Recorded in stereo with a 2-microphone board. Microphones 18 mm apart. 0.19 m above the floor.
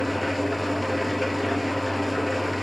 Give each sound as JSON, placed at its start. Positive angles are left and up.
{"t": 0.0, "sound": "an engine running", "side_deg": 5, "distance_m": 1.2}